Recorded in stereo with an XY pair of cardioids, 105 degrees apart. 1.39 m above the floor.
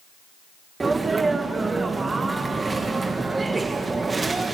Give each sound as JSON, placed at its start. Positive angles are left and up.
{"t": 0.8, "sound": "a sneeze", "azimuth_deg": -25, "distance_m": 1.4}